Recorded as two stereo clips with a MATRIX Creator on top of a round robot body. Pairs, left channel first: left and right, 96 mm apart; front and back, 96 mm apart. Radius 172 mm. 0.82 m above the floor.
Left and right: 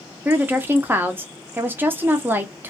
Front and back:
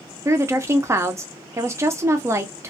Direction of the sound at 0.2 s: 145° right.